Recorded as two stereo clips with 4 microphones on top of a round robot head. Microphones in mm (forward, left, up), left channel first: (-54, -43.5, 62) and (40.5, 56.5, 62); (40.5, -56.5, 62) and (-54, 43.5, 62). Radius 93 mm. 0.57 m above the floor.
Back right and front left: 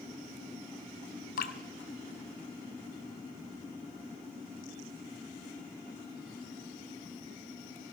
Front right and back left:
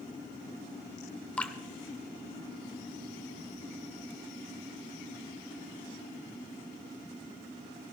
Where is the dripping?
130° right, 1.0 m.